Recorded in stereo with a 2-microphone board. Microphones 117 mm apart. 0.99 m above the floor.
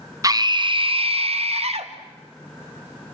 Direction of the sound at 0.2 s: 30° right (ahead or behind).